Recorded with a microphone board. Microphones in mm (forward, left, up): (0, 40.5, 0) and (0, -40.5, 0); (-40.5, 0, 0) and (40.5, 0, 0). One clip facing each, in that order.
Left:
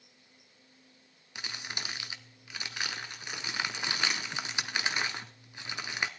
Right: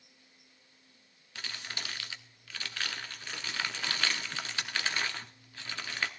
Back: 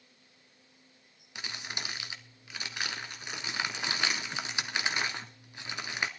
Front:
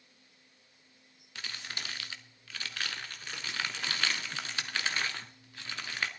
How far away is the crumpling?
About 1.2 m.